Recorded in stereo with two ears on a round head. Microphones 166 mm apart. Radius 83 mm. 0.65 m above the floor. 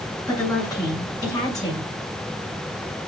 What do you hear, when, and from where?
0.3 s a woman speaking: 20° left (ahead or behind), 7 m